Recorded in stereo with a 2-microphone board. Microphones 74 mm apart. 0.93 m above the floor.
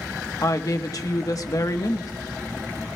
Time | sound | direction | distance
0.4 | a woman speaking | 50° left (ahead or behind) | 1.1 m